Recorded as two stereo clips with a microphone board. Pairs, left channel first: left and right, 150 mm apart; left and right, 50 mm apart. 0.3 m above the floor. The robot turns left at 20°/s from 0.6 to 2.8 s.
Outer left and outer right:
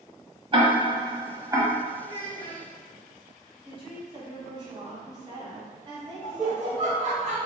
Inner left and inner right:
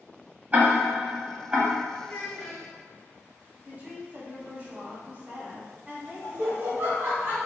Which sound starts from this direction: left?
A child speaking, at 2.0 s.